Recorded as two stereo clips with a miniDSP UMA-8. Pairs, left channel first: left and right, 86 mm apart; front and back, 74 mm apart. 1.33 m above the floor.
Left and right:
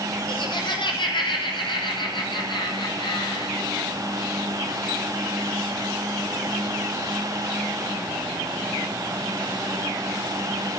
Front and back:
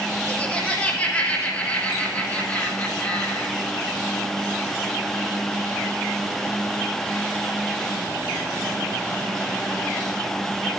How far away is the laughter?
About 4 m.